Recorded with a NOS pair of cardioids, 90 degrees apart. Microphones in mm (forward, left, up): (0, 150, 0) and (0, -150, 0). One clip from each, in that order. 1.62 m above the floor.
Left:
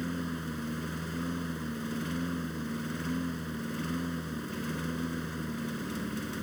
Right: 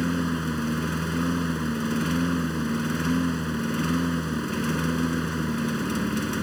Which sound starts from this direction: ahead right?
A lawn mower, at 0.0 s.